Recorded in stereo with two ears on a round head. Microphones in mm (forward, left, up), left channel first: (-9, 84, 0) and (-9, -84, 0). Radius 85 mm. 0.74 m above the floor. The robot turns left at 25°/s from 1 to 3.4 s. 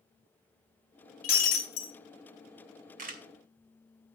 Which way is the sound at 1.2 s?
45° left (ahead or behind).